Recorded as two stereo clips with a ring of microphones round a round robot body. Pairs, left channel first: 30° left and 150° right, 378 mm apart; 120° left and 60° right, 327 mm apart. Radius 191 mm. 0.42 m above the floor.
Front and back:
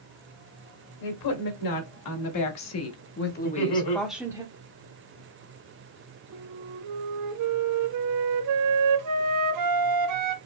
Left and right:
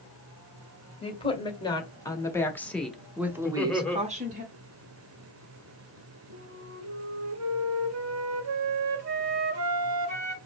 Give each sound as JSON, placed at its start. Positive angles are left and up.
{"t": 1.0, "sound": "a woman speaking", "azimuth_deg": 50, "distance_m": 1.9}
{"t": 3.4, "sound": "laughter", "azimuth_deg": 35, "distance_m": 1.6}
{"t": 6.3, "sound": "a flute", "azimuth_deg": -110, "distance_m": 0.8}